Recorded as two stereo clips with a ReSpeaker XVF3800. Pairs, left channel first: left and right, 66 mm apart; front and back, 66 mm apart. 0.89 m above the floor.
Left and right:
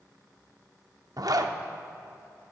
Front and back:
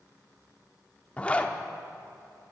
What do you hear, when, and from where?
1.2 s a zipper: 70° right, 0.7 m